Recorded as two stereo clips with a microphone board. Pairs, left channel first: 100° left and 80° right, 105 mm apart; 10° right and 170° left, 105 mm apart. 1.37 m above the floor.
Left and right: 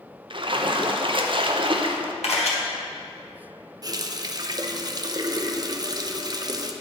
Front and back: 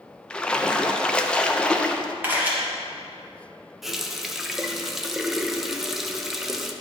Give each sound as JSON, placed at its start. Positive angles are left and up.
{"t": 0.3, "sound": "a splash", "azimuth_deg": -90, "distance_m": 0.6}
{"t": 2.2, "sound": "a camera shutter", "azimuth_deg": 100, "distance_m": 1.4}
{"t": 3.8, "sound": "a running tap", "azimuth_deg": -105, "distance_m": 0.5}